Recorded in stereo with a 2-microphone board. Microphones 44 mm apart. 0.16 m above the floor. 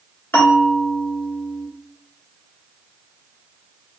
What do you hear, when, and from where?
0.3 s a bell: 45° left (ahead or behind), 1.3 m